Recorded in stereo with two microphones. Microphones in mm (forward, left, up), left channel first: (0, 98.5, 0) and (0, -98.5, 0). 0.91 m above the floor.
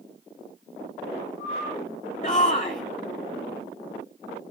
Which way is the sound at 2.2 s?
35° left (ahead or behind).